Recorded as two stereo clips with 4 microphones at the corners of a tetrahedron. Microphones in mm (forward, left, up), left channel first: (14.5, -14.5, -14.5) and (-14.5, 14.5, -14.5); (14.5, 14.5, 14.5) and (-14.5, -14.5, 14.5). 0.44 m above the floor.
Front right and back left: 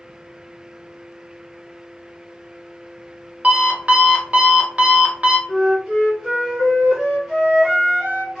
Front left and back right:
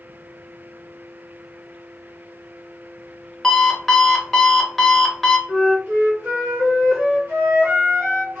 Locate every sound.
3.4 s an alarm clock: 130° left, 0.6 m
5.5 s a flute: 125° right, 1.5 m